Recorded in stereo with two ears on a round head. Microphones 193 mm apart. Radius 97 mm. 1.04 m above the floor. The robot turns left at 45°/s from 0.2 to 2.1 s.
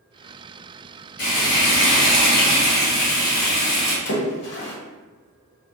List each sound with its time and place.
1.2 s frying: 65° left, 1.4 m; by 4.0 s 20° left, 1.4 m
4.0 s a splash: 55° left (ahead or behind), 0.7 m